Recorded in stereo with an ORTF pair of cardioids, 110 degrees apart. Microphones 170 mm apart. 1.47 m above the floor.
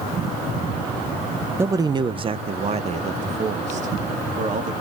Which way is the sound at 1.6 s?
15° right.